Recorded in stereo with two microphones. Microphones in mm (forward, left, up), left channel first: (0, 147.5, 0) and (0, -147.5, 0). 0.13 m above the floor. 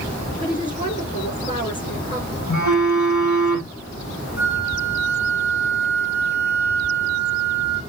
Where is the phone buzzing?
70° left (ahead or behind), 5 m.